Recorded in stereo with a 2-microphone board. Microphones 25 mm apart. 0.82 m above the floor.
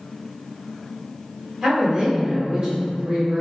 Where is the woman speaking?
30° right (ahead or behind), 1.2 m.